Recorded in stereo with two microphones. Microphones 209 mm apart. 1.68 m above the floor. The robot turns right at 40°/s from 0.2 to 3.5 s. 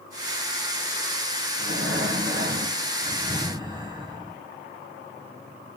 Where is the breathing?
95° right, 1.4 m; by 4.4 s 20° right, 1.4 m.